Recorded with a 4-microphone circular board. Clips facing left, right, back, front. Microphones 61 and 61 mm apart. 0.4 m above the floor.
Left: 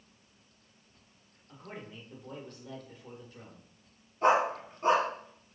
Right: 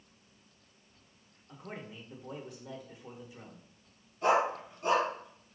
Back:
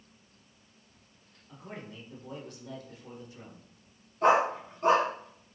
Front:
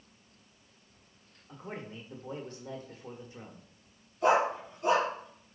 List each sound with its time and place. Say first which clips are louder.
1.5 s a man speaking: right 1 dB, front 2 dB; 20° right, 1.1 m
4.2 s a dog barking: left 2 dB, back 2 dB; 140° left, 1.6 m